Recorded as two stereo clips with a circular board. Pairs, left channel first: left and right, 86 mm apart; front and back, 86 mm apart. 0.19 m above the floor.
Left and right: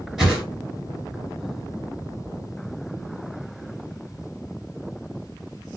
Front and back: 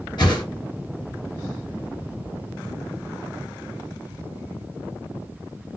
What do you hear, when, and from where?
0.2 s a whoosh: 10° right, 2.5 m